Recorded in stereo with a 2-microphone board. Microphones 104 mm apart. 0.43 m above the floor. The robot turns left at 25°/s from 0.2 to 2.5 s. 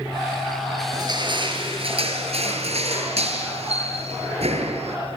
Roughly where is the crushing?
Ahead right.